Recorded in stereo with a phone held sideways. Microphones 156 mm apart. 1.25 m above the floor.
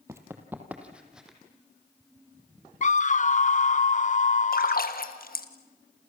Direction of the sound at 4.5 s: 65° left (ahead or behind).